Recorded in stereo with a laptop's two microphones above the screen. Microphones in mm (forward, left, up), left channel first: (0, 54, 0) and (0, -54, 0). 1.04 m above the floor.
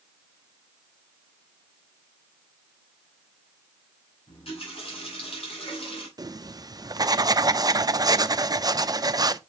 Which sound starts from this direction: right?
Writing, at 6.2 s.